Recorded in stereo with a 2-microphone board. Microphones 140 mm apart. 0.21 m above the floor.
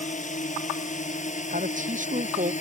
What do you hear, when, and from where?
0.0 s a drone: 60° left (ahead or behind)
1.5 s a man speaking: 65° right (ahead or behind)